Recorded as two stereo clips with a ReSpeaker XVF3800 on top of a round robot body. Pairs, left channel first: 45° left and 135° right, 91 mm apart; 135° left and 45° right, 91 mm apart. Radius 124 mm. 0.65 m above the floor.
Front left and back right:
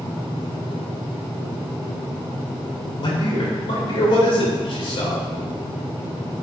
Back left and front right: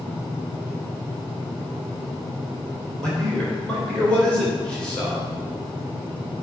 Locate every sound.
3.0 s a man speaking: 55° left, 3 m